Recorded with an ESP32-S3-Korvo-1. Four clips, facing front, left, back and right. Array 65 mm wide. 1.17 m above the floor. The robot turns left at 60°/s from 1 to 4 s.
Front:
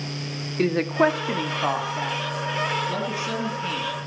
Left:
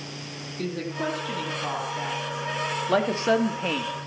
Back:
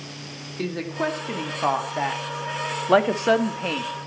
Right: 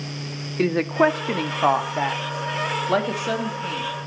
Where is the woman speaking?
60° right, 1.8 m; by 3.9 s 130° left, 1.8 m.